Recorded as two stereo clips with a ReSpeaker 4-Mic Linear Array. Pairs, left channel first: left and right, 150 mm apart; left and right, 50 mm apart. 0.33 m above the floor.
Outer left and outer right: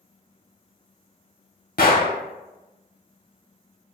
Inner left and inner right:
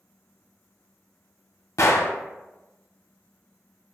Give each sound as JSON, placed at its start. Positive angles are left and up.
{"t": 1.8, "sound": "a gunshot", "side_deg": 70, "distance_m": 0.5}